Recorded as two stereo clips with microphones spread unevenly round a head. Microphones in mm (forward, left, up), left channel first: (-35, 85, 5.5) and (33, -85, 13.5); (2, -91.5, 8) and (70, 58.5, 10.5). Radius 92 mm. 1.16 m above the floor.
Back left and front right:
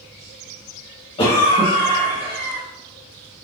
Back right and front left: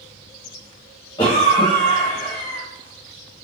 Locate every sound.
1.2 s a cough: 175° left, 1.4 m